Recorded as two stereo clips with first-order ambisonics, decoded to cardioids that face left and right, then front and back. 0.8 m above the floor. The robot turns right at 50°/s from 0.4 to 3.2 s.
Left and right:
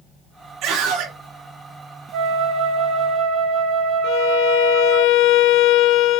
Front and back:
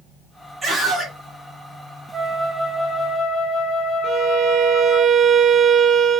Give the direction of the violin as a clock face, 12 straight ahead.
8 o'clock.